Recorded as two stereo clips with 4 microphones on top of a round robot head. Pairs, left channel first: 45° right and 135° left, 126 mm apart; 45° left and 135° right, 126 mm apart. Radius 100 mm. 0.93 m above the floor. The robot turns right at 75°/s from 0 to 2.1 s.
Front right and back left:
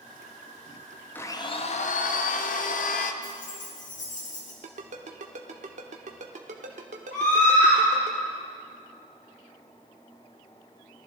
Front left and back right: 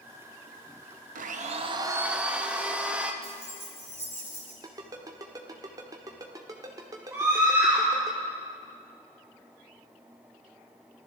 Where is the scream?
65° right, 2.5 m.